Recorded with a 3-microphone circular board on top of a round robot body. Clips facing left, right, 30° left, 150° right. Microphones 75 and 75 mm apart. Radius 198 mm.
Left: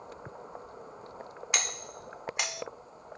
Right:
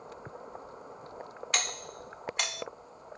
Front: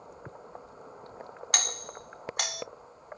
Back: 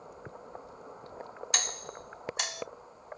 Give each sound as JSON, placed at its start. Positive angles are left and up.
{"t": 1.5, "sound": "a doorbell", "azimuth_deg": 15, "distance_m": 3.0}